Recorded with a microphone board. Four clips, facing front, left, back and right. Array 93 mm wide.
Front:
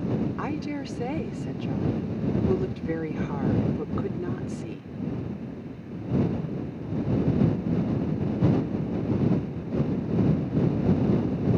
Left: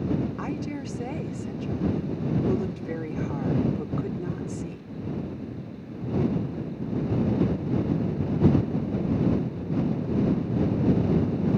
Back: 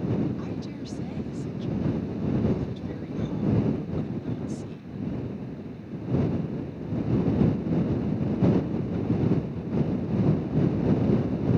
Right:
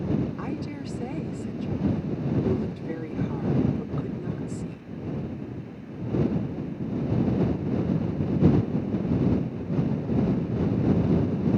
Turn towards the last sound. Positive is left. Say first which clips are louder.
# left 1 dB, front 4 dB
turn(degrees=15)